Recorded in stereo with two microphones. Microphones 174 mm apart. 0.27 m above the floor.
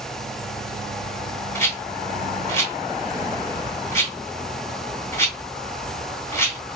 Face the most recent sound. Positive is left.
turn(degrees=15)  # may be behind; listen again after turning